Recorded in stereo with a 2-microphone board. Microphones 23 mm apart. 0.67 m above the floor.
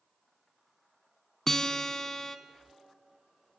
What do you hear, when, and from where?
1.5 s a guitar: 20° left (ahead or behind), 1.2 m